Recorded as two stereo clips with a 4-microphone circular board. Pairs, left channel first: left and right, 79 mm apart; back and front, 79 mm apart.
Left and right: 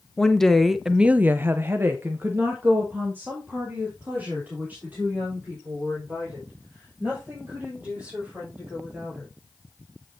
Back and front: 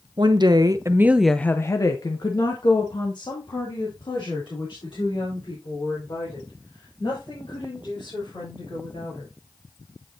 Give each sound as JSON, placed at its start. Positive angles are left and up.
{"t": 0.2, "sound": "a woman speaking", "azimuth_deg": 5, "distance_m": 1.1}